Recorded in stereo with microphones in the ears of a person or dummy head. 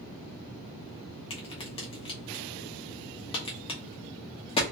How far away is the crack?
About 0.8 m.